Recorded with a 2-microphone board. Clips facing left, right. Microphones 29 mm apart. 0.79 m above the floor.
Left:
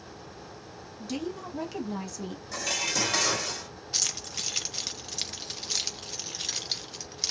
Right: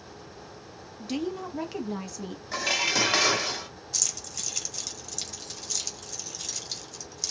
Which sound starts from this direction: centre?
A woman speaking, at 1.0 s.